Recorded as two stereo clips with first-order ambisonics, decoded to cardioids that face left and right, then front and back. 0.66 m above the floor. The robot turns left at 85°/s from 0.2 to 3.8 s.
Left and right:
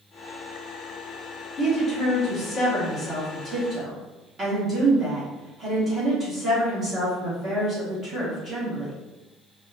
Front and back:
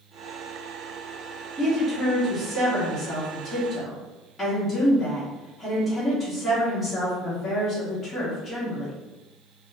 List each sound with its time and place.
1.6 s a woman speaking: 135° left, 1.1 m; by 8.9 s 55° right, 1.1 m